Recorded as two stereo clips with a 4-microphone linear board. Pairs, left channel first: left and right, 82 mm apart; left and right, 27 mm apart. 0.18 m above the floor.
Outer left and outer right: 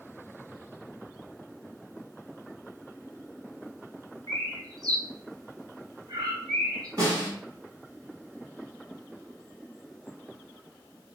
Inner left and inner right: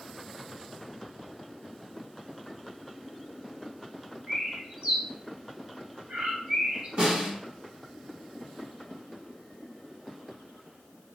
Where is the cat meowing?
No cat meowing in this recording.